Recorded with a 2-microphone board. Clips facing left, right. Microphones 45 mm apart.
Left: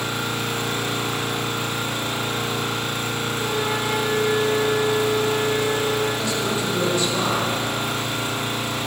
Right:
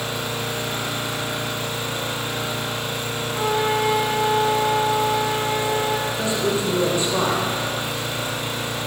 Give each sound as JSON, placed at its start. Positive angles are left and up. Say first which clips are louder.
{"t": 0.0, "sound": "an engine running", "louder": "left 1 dB", "side_deg": 60, "distance_m": 1.7}
{"t": 3.4, "sound": "a flute", "louder": "right 6 dB", "side_deg": -60, "distance_m": 0.9}
{"t": 6.1, "sound": "a man speaking", "louder": "right 1 dB", "side_deg": -25, "distance_m": 1.5}